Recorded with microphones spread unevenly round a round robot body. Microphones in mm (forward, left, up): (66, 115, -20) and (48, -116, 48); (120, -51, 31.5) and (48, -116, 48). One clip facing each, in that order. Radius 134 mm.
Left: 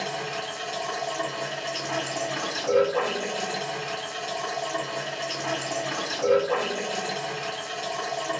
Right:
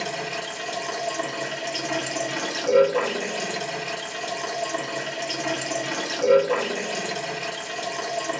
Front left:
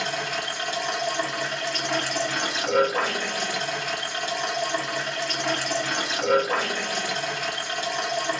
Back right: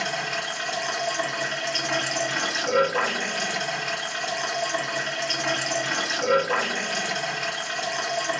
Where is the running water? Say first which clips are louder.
Right 1 dB, even; 40° right, 1.5 m.